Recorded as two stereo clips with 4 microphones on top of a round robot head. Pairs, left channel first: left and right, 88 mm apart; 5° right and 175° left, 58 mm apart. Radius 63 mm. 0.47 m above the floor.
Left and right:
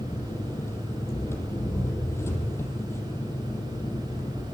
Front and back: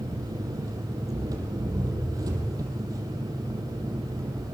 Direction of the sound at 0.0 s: 155° left.